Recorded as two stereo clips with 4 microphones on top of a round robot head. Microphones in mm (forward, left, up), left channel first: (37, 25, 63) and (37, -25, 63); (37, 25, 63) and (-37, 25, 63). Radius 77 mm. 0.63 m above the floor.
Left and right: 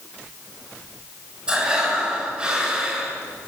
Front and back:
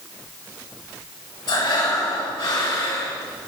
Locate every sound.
1.5 s breathing: 20° right, 5.5 m